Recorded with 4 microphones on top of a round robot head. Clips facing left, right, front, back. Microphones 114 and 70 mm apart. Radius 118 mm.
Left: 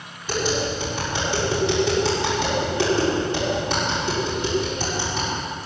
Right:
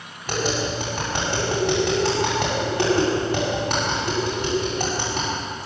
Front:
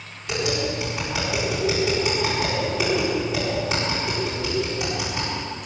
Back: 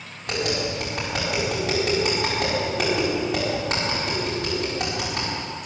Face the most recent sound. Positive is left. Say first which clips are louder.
# left 1 dB, front 1 dB
turn(degrees=-135)